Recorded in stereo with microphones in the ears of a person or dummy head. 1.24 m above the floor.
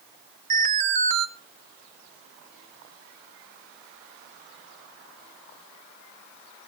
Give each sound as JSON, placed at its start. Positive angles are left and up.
{"t": 0.5, "sound": "an alarm", "side_deg": -40, "distance_m": 1.5}